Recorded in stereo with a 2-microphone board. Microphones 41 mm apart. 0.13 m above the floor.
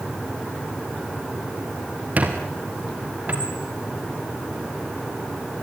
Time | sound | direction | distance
2.2 | a squeak | 40° right (ahead or behind) | 4.5 m